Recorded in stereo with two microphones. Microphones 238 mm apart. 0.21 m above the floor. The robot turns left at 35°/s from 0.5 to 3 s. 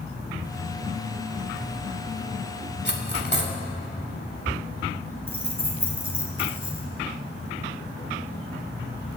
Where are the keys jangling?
65° right (ahead or behind), 2 m.